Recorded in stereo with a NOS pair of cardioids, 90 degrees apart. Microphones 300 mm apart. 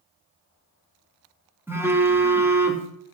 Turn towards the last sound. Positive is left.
turn(degrees=-10)